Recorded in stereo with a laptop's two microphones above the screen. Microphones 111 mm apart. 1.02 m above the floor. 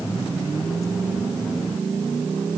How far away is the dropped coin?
No dropped coin in this recording.